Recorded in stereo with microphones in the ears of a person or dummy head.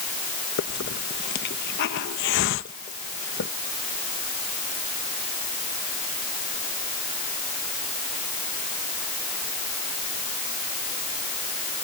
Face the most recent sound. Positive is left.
turn(degrees=60)  # may be behind; listen again after turning